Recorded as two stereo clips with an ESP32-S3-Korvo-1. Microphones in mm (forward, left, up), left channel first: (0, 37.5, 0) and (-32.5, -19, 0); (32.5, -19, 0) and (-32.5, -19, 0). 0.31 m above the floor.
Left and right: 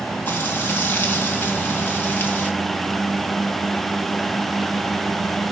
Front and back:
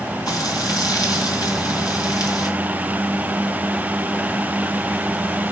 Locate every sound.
0.3 s frying: straight ahead, 3.5 m